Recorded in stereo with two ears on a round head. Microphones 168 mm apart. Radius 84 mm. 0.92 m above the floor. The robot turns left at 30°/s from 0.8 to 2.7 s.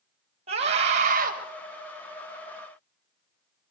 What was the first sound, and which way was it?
A scream, 35° right (ahead or behind).